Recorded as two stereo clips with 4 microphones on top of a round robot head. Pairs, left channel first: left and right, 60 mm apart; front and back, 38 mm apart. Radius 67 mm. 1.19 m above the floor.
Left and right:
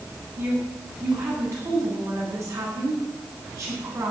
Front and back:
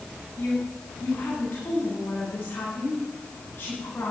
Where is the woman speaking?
50° right, 9.5 m.